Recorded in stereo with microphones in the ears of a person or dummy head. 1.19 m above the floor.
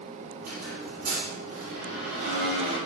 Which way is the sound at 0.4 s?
50° right (ahead or behind).